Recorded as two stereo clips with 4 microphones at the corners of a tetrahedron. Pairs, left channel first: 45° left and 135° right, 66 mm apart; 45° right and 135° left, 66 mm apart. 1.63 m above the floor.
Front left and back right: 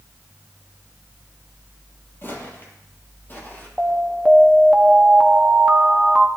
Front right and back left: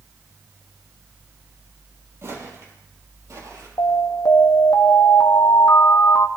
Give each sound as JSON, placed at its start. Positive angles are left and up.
{"t": 2.2, "sound": "footsteps", "azimuth_deg": 95, "distance_m": 3.0}
{"t": 3.8, "sound": "an alarm", "azimuth_deg": -55, "distance_m": 1.0}